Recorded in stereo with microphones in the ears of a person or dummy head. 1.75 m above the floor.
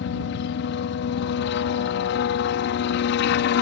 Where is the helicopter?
70° left (ahead or behind); by 3.6 s 65° left (ahead or behind).